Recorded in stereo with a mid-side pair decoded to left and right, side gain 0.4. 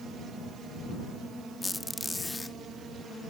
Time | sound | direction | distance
1.6 | a squeak | 25° left | ?